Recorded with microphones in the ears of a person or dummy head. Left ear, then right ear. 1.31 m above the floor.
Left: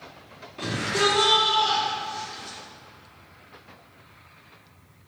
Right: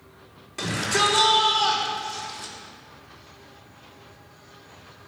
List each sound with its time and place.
0.6 s a shout: 55° right (ahead or behind), 4.5 m